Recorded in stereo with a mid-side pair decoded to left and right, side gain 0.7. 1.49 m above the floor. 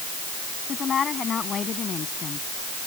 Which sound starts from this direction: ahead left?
A woman speaking, at 0.7 s.